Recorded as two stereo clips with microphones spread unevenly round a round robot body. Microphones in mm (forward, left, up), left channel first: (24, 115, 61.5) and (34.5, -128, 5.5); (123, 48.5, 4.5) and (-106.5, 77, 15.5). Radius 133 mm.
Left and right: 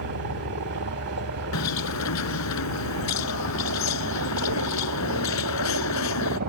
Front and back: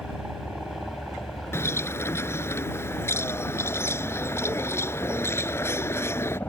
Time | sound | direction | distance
0.0 | a helicopter | 100° right | ?
1.5 | a bird | 75° left | ?